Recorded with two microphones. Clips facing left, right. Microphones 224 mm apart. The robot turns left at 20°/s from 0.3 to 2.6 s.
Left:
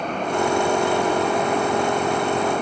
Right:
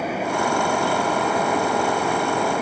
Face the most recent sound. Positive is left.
No sound to turn to.